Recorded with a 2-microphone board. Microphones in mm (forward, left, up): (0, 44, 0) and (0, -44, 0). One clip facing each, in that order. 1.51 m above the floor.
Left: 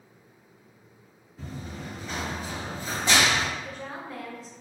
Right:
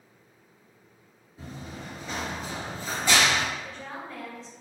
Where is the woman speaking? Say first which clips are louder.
Left 1 dB; 10° left (ahead or behind), 1.1 m.